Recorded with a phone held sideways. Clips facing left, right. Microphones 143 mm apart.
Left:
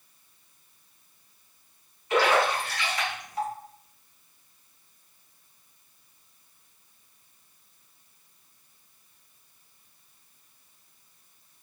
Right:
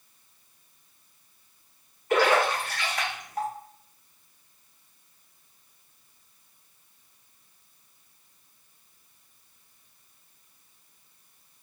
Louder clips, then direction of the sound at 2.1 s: Right 1 dB; 50° right (ahead or behind).